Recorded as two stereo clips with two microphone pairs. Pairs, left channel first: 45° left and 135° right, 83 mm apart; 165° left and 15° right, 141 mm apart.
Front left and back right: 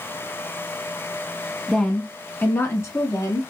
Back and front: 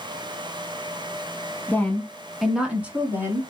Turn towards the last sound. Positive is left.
turn(degrees=50)